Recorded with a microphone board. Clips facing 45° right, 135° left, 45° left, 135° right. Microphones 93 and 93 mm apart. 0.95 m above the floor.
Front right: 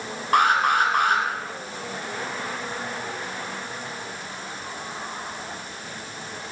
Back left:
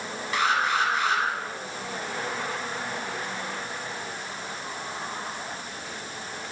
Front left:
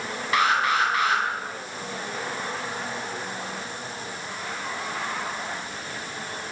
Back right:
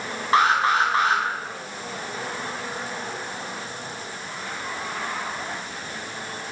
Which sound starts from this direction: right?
An alarm, at 0.3 s.